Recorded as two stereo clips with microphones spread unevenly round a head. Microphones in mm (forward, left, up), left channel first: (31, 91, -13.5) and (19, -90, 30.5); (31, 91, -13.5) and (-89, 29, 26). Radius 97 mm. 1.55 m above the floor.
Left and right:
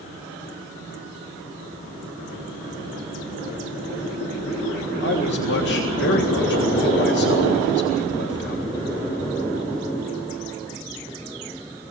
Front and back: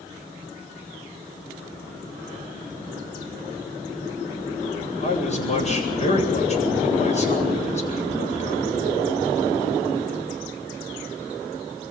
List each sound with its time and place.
5.0 s a man speaking: 60° left, 8.5 m